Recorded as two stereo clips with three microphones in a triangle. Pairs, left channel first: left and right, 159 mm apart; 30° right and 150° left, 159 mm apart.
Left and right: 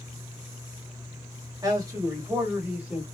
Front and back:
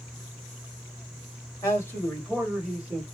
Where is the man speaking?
70° right, 1.5 m; by 3.0 s 155° right, 1.5 m.